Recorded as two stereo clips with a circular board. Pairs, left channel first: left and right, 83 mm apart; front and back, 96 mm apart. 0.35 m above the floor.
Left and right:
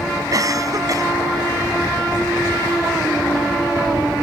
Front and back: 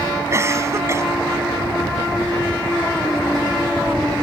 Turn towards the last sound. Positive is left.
turn(degrees=-125)